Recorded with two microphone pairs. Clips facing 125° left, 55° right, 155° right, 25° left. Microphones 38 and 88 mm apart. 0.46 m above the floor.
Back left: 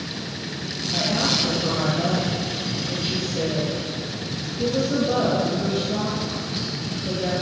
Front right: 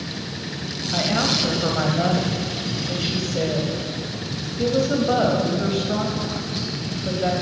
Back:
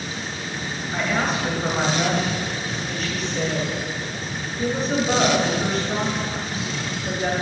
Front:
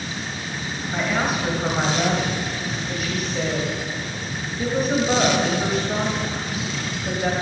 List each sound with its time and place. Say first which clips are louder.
0.9 s a woman speaking: front right 1 dB, even; 60° right, 2.5 m